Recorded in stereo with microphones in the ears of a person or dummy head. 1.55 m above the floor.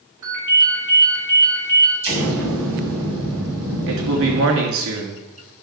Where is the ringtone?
15° right (ahead or behind), 5 m.